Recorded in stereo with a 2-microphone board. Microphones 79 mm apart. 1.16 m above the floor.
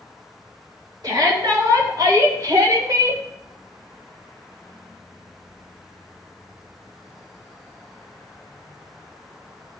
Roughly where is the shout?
Right.